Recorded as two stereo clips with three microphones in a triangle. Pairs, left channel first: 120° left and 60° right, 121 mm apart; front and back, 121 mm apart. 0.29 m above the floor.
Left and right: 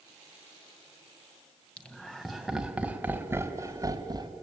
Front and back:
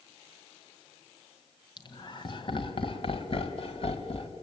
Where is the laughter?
40° left, 2 m; by 4.3 s 15° right, 2 m.